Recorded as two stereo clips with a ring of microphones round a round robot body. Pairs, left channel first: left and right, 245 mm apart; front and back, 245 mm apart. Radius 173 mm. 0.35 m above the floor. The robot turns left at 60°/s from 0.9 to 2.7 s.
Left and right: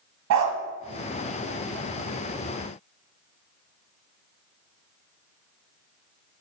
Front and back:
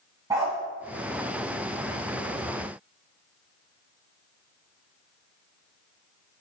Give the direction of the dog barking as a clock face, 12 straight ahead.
3 o'clock.